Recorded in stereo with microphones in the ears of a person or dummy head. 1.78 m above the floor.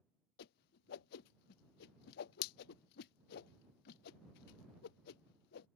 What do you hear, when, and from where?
0.4 s a whoosh: 55° left (ahead or behind)